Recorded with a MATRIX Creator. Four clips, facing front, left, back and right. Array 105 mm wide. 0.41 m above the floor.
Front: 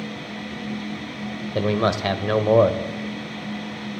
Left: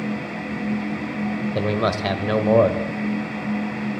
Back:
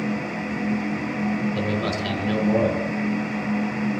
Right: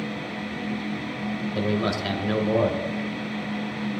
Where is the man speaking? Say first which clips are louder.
Left 3 dB, front 3 dB; 40° left, 1.3 m.